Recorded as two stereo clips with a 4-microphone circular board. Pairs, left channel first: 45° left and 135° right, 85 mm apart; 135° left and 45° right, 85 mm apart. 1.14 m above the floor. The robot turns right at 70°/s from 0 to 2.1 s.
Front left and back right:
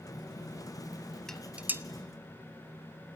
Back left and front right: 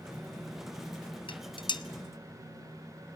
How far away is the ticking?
No ticking in this recording.